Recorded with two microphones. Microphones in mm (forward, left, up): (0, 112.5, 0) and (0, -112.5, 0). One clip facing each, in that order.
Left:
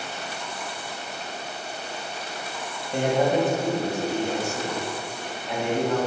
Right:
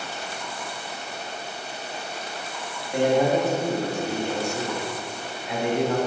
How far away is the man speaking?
About 1.8 m.